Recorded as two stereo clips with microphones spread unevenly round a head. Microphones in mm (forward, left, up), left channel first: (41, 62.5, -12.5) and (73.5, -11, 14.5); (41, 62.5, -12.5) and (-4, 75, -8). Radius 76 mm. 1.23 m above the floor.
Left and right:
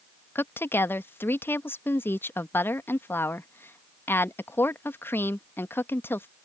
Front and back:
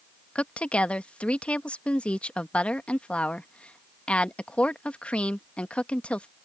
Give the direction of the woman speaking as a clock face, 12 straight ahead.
10 o'clock.